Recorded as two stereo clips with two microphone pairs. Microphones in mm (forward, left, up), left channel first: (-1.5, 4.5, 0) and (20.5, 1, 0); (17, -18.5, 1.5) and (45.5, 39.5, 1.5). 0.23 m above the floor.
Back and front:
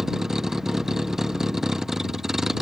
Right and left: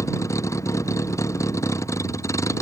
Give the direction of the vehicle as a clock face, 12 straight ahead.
3 o'clock.